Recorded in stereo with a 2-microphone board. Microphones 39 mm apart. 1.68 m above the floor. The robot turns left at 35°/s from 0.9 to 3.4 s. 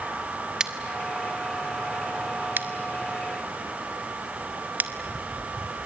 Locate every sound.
0.6 s scissors: 15° right (ahead or behind), 1.7 m; by 4.9 s 45° right (ahead or behind), 1.7 m